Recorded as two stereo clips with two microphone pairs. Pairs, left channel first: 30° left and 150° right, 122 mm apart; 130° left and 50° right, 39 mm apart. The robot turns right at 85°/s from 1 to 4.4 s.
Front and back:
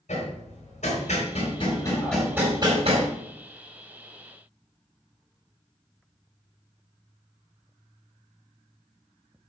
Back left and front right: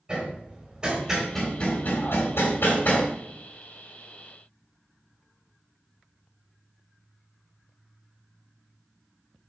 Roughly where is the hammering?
Ahead.